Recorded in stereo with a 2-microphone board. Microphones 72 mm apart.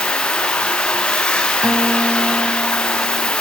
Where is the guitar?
20° right (ahead or behind), 0.7 m.